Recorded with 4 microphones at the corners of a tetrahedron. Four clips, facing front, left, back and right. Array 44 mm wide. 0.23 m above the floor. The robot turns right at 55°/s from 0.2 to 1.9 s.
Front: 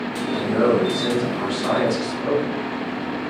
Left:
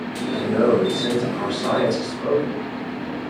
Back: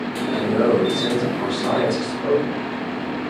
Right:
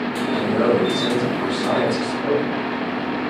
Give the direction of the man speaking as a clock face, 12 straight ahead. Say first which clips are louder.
Left 1 dB, back 1 dB; 12 o'clock.